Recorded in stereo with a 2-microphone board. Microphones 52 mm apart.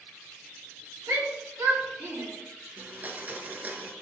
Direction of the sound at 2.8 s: 35° right (ahead or behind).